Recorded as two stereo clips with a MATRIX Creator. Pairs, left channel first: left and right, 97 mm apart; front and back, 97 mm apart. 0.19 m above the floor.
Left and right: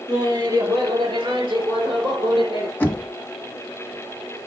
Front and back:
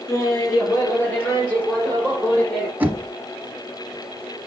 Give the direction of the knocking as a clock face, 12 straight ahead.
8 o'clock.